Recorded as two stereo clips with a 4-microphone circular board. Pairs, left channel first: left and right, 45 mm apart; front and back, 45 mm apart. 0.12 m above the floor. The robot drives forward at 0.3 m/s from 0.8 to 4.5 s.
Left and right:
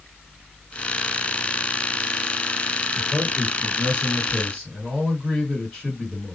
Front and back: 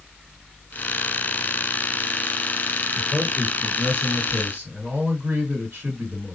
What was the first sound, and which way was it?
A man speaking, 165° left.